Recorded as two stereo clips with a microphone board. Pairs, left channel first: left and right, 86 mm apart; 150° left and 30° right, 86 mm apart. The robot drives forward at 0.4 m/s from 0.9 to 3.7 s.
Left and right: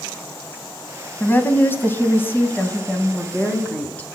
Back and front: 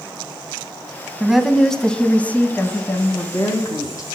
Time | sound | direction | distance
1.2 | a woman speaking | 55° left | 1.1 m